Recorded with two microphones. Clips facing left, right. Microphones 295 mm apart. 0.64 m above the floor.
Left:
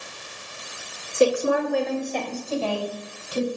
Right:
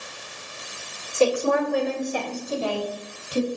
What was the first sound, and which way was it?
A woman speaking, 20° left (ahead or behind).